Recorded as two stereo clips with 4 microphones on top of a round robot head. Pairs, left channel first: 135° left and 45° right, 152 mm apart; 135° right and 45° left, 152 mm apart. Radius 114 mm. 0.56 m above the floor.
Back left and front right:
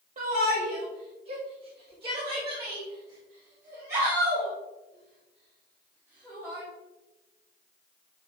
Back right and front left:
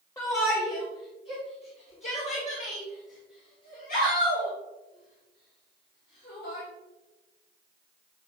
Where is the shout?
65° right, 1.9 m; by 6.6 s 125° right, 4.5 m.